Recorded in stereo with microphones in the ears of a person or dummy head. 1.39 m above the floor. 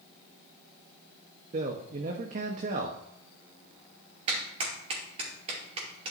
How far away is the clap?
About 2.5 m.